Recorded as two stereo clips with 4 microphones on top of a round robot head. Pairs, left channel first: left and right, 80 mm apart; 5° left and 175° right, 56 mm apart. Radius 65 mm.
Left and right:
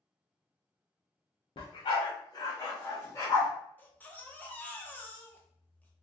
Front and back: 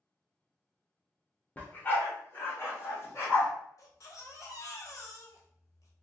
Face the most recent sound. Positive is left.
turn(degrees=20)